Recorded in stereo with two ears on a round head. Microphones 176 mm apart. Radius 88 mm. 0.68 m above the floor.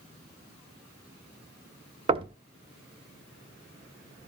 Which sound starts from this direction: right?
Knocking, at 2.1 s.